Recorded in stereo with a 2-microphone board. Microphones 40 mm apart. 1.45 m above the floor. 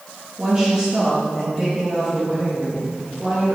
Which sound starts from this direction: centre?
A woman speaking, at 0.4 s.